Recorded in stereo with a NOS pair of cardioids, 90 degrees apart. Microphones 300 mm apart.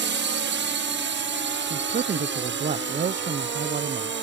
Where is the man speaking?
30° right.